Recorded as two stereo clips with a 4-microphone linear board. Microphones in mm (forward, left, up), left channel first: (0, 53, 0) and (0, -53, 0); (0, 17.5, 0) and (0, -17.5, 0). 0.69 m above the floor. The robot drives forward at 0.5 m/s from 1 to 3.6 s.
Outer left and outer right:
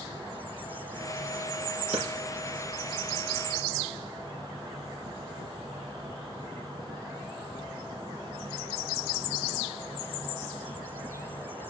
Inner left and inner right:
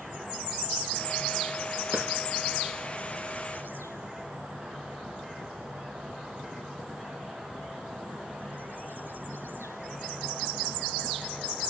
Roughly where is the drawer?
Right.